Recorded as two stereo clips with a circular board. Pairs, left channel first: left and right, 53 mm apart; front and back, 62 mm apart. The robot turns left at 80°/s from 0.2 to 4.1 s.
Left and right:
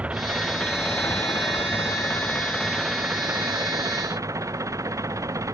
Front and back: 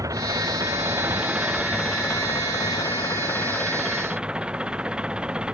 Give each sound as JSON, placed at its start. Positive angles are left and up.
{"t": 0.0, "sound": "an engine running", "azimuth_deg": -155}